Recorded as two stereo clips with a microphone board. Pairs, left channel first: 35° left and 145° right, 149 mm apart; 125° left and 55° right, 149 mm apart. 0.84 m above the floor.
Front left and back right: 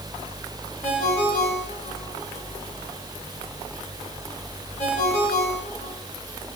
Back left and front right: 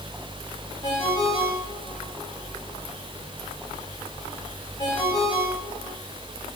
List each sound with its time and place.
0.8 s a ringtone: 65° left, 7 m